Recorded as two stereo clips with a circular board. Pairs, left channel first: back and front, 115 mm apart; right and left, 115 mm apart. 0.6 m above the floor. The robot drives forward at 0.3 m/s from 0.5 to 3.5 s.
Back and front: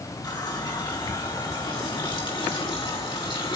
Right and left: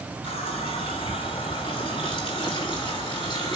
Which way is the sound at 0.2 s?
125° right.